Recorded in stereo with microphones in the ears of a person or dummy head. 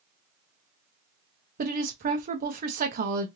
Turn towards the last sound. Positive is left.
turn(degrees=-45)  # may be behind; listen again after turning